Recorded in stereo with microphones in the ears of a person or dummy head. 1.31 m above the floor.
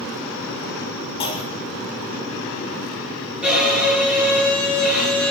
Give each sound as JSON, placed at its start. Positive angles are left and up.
{"t": 1.2, "sound": "a clunk", "side_deg": 25, "distance_m": 2.5}
{"t": 3.4, "sound": "a violin", "side_deg": -10, "distance_m": 6.5}